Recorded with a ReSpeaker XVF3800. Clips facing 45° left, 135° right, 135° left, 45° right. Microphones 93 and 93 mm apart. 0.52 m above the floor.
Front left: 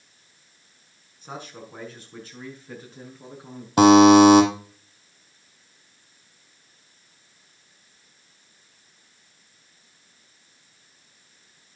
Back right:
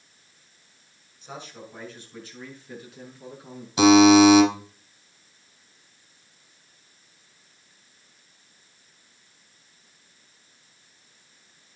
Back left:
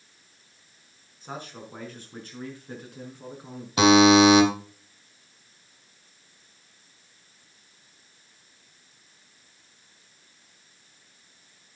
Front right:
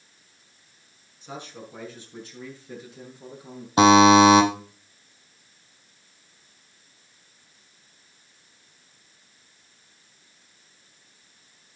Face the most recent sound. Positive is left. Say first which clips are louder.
# front left 2 dB, front right 2 dB
turn(degrees=15)